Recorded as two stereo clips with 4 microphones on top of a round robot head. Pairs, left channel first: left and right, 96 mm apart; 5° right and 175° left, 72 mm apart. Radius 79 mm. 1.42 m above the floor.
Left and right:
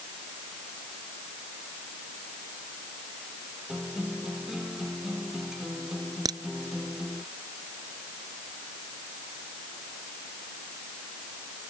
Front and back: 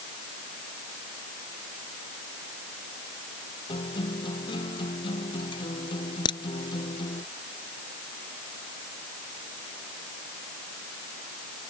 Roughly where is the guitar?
Ahead.